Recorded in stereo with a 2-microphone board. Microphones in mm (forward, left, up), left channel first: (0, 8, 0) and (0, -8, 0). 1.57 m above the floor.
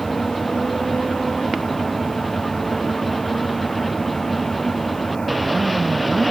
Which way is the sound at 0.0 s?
40° left (ahead or behind).